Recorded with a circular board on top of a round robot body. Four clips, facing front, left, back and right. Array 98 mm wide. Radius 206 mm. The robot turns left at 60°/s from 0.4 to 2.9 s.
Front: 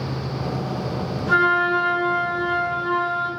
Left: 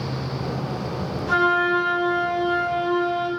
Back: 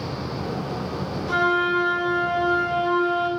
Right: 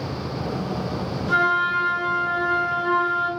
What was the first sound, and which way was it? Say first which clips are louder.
A flute: left 1 dB, front 3 dB; 35° left.